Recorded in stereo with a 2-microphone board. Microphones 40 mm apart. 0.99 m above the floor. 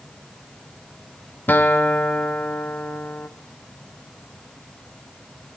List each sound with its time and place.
1.5 s a guitar: 50° left (ahead or behind), 0.7 m